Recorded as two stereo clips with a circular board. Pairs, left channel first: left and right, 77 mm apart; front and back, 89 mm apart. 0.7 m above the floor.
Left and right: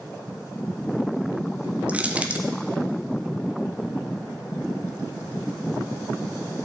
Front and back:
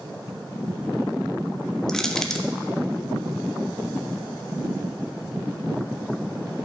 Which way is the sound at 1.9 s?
70° right.